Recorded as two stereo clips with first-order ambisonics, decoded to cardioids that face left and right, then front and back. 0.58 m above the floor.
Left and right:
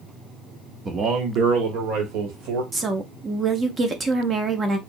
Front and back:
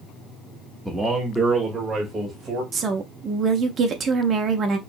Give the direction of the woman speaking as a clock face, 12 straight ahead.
5 o'clock.